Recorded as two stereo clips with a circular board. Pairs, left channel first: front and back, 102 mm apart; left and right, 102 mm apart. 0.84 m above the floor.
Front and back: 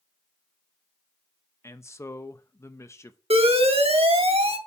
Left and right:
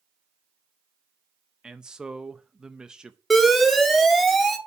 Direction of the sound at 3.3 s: Straight behind.